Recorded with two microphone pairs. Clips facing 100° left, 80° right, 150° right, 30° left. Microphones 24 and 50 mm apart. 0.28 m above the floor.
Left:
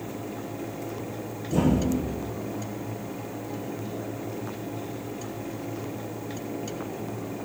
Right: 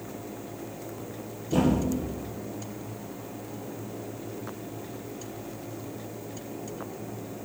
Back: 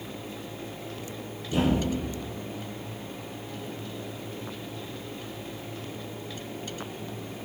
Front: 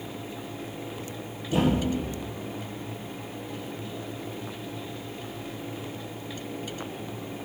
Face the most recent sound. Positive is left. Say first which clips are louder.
# left 1 dB, front 1 dB
turn(degrees=-40)